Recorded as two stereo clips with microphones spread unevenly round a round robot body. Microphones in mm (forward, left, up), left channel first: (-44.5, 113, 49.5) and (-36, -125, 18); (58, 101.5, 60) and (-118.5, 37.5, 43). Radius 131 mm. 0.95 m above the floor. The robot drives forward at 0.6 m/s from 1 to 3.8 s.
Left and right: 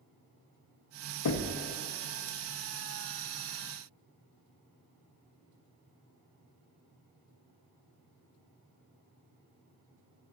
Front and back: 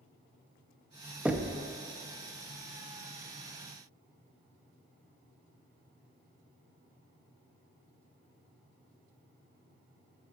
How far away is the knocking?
About 0.7 m.